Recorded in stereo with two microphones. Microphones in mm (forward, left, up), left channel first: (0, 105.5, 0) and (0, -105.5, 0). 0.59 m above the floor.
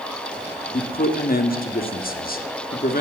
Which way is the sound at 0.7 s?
45° left (ahead or behind).